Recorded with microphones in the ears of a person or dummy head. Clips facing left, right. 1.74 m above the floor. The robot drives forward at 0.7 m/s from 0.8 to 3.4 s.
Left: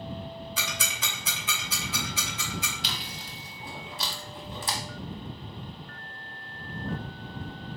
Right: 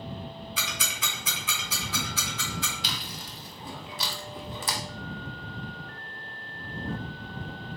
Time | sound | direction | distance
0.6 | ticking | 35° left (ahead or behind) | 0.9 m
2.8 | chewing | 65° right (ahead or behind) | 0.6 m